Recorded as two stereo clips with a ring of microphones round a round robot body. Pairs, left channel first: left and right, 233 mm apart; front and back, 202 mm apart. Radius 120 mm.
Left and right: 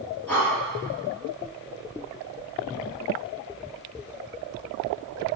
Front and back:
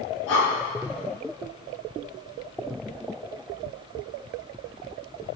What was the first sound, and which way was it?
Breathing, 5° left.